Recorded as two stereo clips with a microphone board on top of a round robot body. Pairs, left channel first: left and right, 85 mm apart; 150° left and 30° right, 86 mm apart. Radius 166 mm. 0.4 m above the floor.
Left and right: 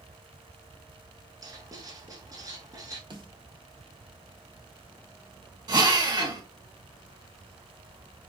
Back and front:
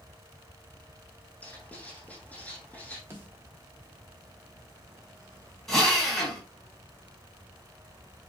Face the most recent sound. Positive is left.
turn(degrees=-125)